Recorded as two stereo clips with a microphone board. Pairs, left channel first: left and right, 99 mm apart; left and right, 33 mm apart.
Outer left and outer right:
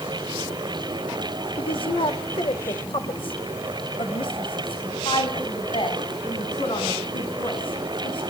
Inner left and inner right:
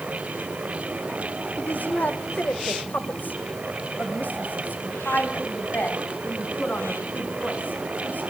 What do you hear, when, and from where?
1.6 s a woman speaking: 60° left (ahead or behind), 2.5 m